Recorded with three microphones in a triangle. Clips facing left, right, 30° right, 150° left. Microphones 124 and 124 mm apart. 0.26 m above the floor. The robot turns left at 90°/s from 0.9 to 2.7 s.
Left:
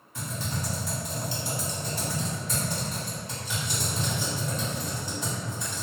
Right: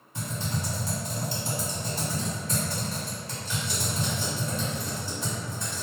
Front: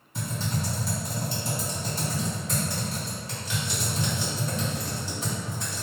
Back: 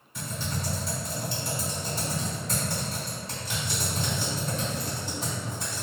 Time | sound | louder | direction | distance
0.1 | typing on a keyboard | right 1 dB, front 3 dB | 55° right | 1.9 m